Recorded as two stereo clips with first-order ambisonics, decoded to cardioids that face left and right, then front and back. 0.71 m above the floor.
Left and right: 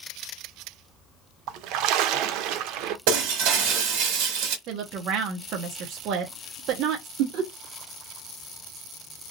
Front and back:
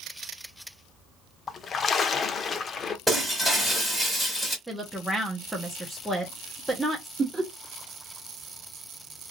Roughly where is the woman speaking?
Right.